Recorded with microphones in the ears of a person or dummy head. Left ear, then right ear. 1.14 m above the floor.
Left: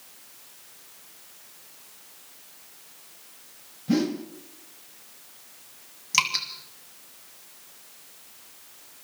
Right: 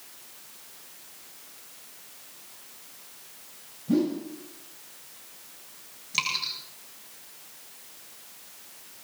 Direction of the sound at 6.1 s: 45° left (ahead or behind).